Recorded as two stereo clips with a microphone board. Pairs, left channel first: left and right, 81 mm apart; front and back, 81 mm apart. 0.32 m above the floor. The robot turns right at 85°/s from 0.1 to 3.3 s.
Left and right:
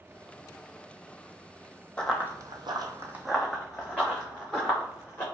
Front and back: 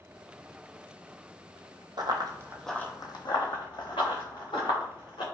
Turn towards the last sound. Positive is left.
turn(degrees=25)